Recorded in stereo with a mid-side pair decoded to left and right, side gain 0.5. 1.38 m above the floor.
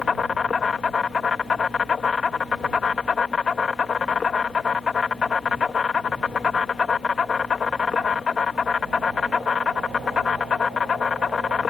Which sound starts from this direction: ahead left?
An insect, at 0.0 s.